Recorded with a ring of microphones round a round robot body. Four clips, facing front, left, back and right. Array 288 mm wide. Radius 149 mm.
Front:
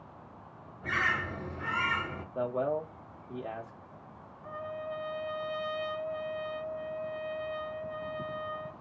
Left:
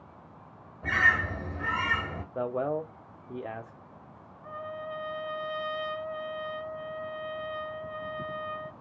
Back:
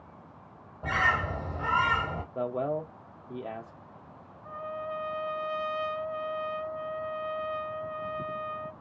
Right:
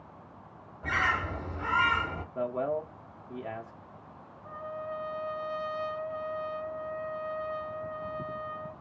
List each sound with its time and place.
0.8 s a bird: 155° left, 1.3 m
2.4 s a man speaking: 110° left, 0.9 m
4.4 s a trumpet: 85° left, 1.6 m